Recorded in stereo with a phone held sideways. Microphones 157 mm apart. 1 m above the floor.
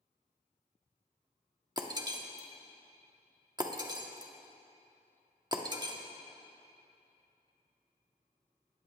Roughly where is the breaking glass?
Right.